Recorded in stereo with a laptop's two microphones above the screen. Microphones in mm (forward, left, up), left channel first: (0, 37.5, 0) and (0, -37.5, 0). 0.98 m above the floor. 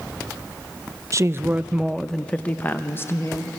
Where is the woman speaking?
40° right (ahead or behind), 0.5 m; by 3.5 s 35° left (ahead or behind), 1.1 m.